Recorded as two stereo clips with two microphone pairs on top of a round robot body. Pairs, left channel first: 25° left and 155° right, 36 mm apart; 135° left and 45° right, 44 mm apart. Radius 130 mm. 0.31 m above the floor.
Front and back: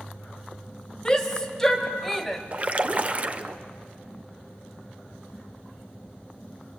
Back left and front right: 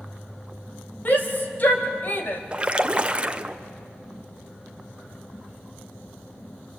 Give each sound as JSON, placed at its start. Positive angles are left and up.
{"t": 1.1, "sound": "a shout", "azimuth_deg": 90, "distance_m": 2.5}
{"t": 2.5, "sound": "a splash", "azimuth_deg": -100, "distance_m": 1.2}